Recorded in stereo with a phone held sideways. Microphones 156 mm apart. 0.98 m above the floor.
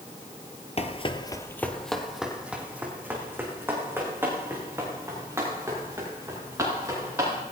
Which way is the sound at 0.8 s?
40° left (ahead or behind).